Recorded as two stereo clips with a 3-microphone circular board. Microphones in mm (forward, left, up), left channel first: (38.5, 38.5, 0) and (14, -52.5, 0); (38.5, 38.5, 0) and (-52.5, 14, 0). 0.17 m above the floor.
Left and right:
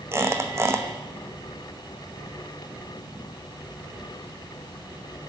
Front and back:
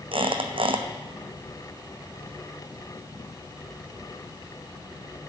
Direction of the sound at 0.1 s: 165° right.